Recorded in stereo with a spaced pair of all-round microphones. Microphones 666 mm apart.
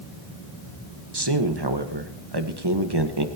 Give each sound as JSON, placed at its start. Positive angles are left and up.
{"t": 1.1, "sound": "a man speaking", "side_deg": -35, "distance_m": 1.6}